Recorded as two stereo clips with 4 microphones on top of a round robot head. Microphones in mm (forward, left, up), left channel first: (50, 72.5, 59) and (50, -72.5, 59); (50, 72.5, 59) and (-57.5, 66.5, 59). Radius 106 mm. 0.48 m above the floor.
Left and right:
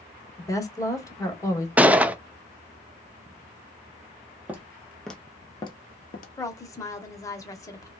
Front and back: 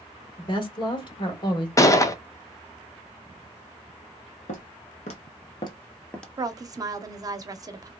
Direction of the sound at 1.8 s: 20° right.